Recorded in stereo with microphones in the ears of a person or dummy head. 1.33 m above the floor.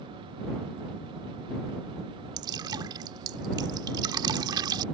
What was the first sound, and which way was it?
Dripping, 30° right (ahead or behind).